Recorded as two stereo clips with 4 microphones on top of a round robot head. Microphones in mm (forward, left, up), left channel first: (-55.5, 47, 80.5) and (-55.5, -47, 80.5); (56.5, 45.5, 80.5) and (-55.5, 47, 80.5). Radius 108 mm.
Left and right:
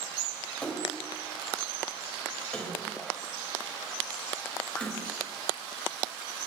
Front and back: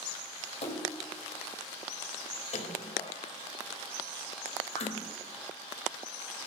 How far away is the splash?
About 3 m.